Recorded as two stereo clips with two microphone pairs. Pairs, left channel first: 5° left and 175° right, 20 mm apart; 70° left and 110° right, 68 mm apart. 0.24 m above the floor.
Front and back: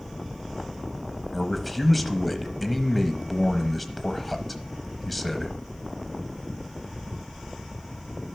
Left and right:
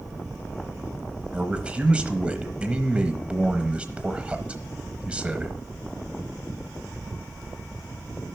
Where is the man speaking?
75° right, 1.0 m.